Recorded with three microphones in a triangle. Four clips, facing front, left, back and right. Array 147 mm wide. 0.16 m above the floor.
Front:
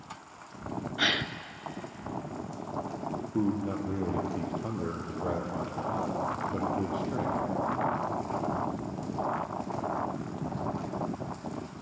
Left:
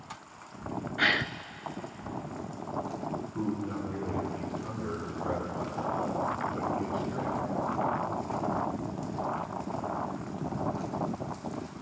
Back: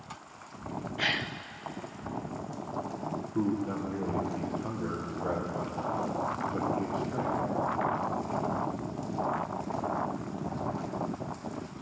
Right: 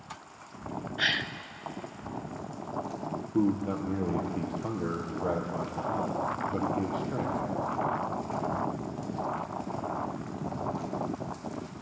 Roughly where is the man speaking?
Ahead right.